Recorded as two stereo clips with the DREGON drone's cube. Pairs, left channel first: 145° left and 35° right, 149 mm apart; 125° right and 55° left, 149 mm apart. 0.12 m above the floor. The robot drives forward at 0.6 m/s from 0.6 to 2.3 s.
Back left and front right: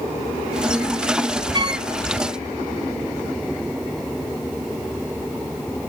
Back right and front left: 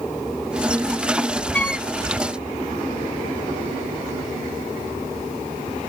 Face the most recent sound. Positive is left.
turn(degrees=-75)